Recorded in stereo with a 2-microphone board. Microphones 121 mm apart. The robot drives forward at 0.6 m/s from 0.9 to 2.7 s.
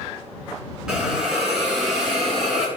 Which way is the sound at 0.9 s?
5° right (ahead or behind).